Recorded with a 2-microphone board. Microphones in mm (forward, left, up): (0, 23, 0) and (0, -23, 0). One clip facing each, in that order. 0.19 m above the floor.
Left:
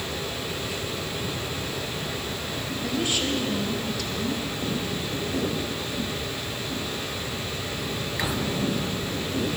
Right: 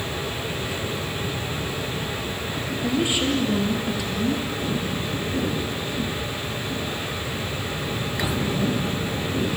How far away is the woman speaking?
About 4.5 m.